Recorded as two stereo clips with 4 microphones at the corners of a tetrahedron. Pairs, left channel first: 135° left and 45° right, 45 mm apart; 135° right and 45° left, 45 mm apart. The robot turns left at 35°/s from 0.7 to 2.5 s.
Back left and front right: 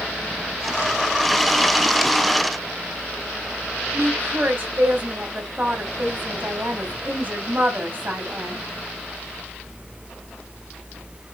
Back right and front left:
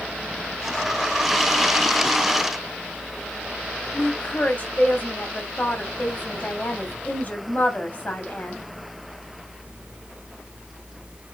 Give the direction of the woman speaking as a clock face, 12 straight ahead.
3 o'clock.